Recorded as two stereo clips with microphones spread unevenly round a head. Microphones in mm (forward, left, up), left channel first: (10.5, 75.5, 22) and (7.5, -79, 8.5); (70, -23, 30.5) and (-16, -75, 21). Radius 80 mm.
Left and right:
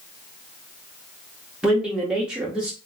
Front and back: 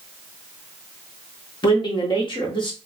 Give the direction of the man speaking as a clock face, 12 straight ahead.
12 o'clock.